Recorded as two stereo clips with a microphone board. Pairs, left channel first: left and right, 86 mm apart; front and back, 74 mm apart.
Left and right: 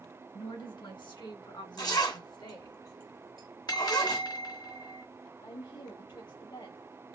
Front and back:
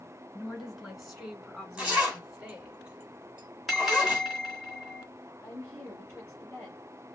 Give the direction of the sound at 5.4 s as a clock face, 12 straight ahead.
9 o'clock.